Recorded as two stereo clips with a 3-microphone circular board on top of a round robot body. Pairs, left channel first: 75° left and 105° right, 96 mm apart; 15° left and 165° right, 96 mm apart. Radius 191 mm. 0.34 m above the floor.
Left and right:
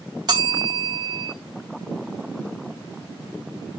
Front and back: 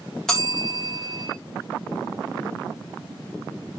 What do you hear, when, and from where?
0.3 s a bell: 70° right, 3.5 m